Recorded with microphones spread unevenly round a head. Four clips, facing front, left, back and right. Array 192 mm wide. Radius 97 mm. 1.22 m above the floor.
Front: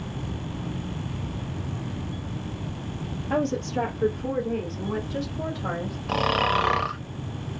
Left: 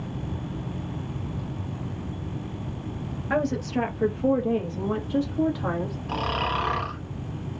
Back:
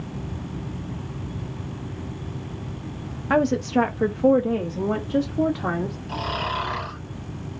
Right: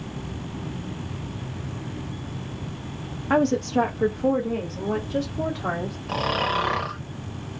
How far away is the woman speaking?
About 0.5 m.